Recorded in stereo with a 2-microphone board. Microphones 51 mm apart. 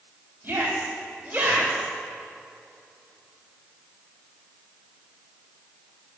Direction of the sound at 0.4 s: 35° right (ahead or behind).